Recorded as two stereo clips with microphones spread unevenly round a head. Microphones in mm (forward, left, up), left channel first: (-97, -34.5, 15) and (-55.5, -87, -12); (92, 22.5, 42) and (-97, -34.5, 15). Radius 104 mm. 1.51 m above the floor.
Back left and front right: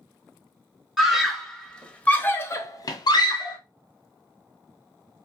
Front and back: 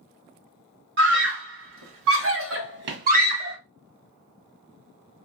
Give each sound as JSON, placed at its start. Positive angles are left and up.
{"t": 1.0, "sound": "a scream", "azimuth_deg": -135, "distance_m": 1.6}